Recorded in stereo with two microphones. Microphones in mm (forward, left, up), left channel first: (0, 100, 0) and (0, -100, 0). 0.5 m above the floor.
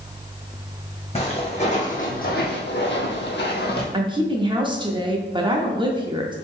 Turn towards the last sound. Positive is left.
turn(degrees=-25)  # may be behind; listen again after turning